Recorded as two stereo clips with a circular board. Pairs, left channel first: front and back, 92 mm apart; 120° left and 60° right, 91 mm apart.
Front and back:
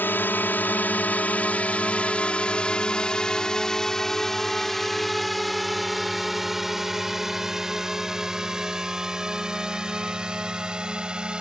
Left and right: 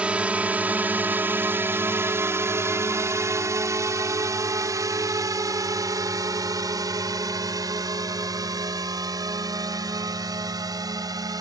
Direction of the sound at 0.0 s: 5° right.